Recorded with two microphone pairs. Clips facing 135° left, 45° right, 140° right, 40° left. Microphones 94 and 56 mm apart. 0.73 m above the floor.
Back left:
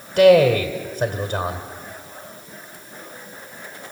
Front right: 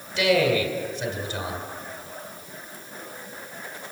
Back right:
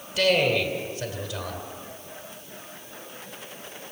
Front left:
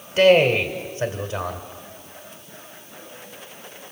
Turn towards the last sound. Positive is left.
turn(degrees=95)